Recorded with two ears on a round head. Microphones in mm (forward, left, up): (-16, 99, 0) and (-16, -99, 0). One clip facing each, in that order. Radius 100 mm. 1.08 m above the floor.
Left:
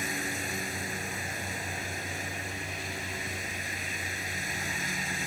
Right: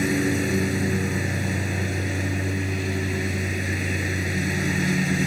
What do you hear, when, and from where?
0.0 s a lawn mower: 60° right (ahead or behind)